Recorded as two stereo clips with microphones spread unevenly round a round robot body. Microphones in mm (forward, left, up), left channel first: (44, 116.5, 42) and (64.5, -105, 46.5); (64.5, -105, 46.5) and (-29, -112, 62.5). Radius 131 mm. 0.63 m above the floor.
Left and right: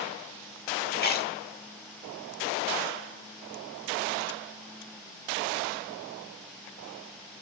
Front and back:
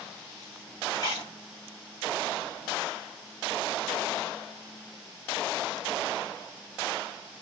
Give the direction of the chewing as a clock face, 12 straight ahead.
10 o'clock.